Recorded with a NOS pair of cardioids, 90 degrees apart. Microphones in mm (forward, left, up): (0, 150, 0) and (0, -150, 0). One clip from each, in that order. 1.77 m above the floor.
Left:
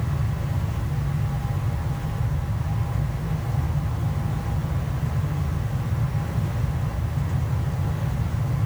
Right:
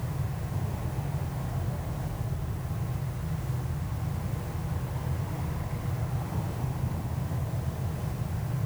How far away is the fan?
About 1.6 m.